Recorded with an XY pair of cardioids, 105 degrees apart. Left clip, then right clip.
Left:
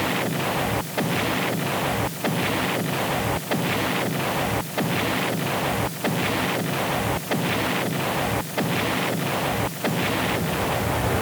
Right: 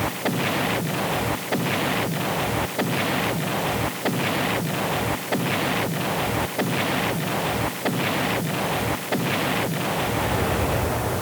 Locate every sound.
Only background noise.